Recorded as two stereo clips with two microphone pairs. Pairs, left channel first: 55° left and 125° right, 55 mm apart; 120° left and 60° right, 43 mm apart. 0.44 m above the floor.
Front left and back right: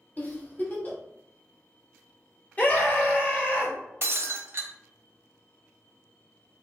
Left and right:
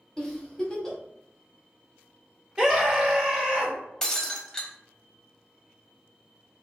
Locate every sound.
0.2 s a giggle: 60° left, 1.1 m
2.6 s a scream: 10° left, 1.6 m
4.0 s breaking glass: 165° right, 0.6 m